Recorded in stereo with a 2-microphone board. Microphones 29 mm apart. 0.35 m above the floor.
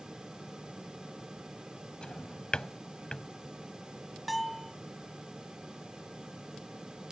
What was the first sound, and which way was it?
A drawer, 30° left (ahead or behind).